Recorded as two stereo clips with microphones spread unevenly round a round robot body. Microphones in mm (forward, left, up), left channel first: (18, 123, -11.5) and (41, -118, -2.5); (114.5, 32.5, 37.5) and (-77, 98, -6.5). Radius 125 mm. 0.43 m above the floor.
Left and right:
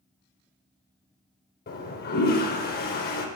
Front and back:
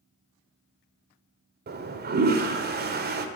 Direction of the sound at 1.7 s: 145° left.